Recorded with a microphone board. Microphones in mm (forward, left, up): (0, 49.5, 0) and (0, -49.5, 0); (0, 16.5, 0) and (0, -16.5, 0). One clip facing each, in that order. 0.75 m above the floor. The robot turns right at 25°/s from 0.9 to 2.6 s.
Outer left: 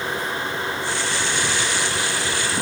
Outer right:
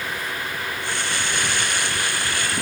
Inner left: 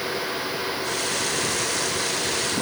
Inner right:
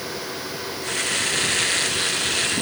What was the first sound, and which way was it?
Only background noise.